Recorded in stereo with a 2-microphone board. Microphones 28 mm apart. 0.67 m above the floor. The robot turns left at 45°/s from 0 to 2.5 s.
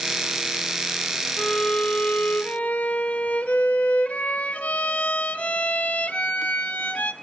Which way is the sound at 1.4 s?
140° left.